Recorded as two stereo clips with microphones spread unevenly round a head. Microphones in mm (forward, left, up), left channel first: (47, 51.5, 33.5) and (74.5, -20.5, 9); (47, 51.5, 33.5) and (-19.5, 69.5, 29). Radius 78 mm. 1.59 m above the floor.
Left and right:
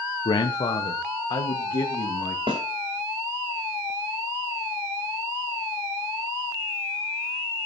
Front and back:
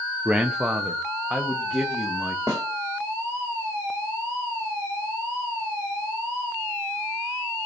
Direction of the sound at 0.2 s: 90° left.